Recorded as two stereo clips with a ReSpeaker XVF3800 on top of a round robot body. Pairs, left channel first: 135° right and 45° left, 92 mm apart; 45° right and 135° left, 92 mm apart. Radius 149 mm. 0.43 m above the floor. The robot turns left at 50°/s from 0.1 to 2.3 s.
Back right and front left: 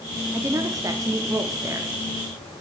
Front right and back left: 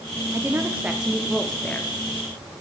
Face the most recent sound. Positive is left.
turn(degrees=-10)